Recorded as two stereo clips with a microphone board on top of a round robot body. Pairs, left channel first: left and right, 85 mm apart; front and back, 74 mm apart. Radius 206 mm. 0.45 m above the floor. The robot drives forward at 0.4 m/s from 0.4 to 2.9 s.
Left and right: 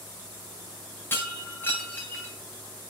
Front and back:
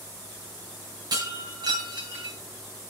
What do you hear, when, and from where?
1.1 s breaking glass: 155° left, 2.5 m; by 2.4 s 160° left, 3 m